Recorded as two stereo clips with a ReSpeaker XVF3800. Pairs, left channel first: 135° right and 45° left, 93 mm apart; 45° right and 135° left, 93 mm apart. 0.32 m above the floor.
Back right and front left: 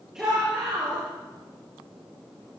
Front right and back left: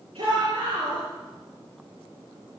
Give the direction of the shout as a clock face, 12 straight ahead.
8 o'clock.